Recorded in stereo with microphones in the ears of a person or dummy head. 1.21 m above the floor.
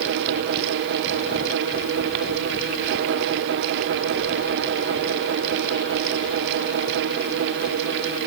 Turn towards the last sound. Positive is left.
No sound to turn to.